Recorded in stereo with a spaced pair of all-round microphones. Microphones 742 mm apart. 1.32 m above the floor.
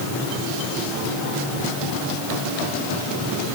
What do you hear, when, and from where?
Only background noise.